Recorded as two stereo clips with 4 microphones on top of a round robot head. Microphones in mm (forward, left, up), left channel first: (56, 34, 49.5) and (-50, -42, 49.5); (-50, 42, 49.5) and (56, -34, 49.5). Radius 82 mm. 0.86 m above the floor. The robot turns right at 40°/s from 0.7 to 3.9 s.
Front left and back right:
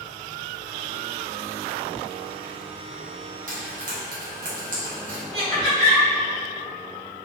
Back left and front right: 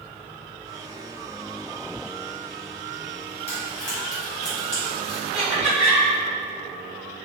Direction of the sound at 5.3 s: 120° right.